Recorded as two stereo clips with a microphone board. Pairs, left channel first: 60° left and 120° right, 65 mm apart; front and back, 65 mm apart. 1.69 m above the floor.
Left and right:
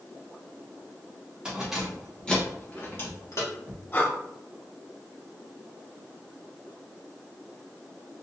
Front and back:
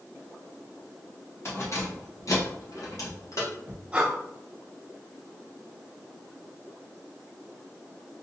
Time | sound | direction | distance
1.4 | keys jangling | 45° right | 1.3 m
3.9 | breathing | 115° left | 0.9 m